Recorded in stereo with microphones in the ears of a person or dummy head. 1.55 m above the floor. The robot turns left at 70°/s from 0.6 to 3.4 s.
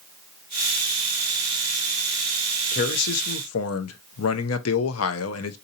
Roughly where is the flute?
No flute in this recording.